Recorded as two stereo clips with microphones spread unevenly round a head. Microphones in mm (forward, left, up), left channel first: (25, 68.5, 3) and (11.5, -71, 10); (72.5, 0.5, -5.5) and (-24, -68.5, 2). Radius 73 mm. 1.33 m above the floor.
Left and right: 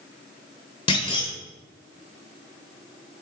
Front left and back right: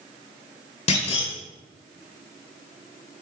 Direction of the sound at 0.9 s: 45° left.